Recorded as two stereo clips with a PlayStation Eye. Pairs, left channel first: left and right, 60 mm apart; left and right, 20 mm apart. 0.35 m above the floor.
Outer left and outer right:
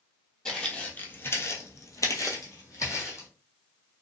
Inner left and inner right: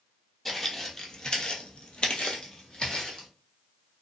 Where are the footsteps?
10° left (ahead or behind), 0.8 m; by 3.3 s 50° left (ahead or behind), 1.1 m.